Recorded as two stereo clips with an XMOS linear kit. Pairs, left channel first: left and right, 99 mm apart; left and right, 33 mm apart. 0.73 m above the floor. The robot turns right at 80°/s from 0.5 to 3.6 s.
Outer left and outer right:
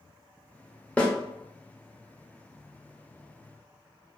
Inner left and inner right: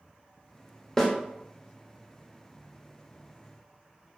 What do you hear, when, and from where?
1.0 s a snare drum: 15° left (ahead or behind), 0.6 m; by 1.1 s 25° left (ahead or behind), 0.6 m